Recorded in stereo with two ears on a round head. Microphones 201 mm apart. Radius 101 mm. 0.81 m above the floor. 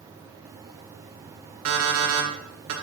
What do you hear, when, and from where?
1.6 s an alarm clock: 70° right (ahead or behind), 1.8 m